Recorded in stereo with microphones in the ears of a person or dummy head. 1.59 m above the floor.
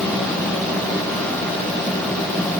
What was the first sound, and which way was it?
Only background noise.